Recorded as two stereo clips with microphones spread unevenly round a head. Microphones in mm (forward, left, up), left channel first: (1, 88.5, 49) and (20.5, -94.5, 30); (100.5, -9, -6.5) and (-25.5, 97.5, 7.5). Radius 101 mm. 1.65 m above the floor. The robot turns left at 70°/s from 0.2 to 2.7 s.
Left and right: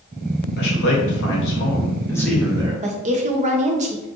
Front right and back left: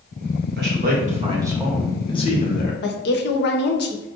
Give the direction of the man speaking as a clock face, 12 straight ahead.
8 o'clock.